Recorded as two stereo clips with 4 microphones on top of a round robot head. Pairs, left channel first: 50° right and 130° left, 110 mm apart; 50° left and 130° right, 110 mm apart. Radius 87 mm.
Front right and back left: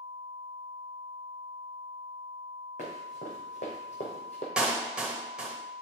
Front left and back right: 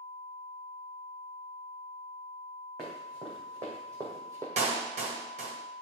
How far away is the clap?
About 2.5 m.